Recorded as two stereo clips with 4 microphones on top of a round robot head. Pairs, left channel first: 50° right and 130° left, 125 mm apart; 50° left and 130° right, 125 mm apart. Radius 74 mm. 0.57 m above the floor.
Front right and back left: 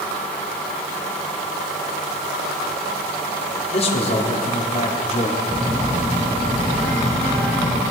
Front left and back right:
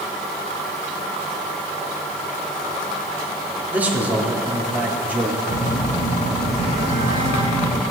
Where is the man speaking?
60° right, 1.8 m.